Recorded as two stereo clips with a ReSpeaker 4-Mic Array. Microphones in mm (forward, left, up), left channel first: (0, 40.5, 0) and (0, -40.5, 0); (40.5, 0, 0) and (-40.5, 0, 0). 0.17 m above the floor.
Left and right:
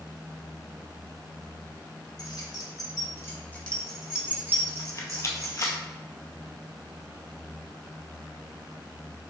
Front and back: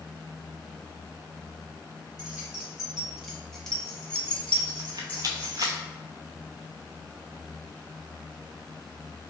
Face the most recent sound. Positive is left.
turn(degrees=140)